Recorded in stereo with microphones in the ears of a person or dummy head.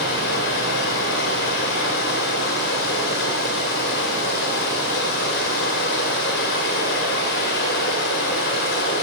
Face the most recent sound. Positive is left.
turn(degrees=65)  # may be behind; listen again after turning